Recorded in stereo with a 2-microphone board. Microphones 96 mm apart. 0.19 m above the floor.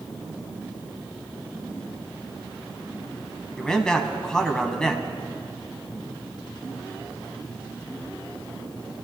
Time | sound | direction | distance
3.6 | a man speaking | 5° left (ahead or behind) | 1.3 m